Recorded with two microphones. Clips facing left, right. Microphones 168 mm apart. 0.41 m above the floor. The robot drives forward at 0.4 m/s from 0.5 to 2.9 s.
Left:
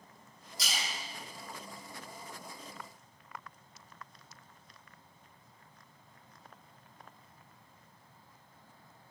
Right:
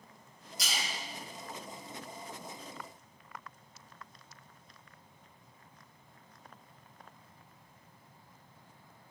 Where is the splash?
30° left (ahead or behind), 1.6 m.